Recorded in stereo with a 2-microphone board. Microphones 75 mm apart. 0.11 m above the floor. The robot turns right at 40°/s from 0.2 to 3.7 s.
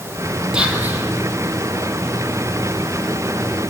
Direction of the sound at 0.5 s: 10° right (ahead or behind).